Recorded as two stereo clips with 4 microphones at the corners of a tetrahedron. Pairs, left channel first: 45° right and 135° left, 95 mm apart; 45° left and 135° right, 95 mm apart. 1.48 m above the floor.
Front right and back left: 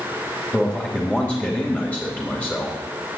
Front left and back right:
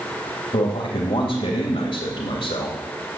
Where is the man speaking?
40° left, 2.5 m.